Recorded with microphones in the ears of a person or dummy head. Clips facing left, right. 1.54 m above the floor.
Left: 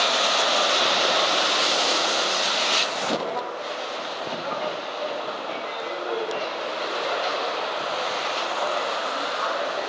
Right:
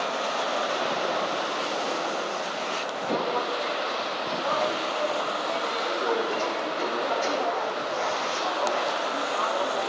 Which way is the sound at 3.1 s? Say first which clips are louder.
Right 2 dB; 65° right (ahead or behind).